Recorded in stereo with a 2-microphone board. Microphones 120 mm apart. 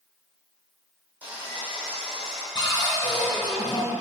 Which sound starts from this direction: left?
A cupboard door, at 2.5 s.